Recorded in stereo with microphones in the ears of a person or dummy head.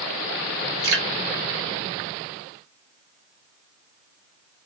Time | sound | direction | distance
0.8 | dripping | 55° right (ahead or behind) | 1.0 m